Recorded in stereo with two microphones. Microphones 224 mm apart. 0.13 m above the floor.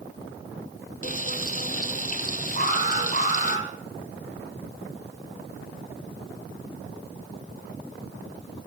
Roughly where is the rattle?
I don't hear a rattle.